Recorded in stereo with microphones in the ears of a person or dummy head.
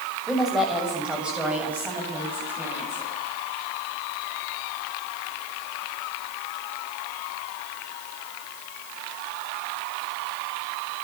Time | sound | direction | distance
0.3 | a woman speaking | 5° right (ahead or behind) | 6.5 m